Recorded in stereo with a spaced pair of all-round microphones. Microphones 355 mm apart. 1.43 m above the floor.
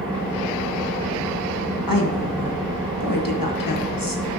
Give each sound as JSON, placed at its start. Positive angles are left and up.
{"t": 0.0, "sound": "an engine running", "side_deg": 0, "distance_m": 4.5}
{"t": 1.9, "sound": "a woman speaking", "side_deg": 85, "distance_m": 1.5}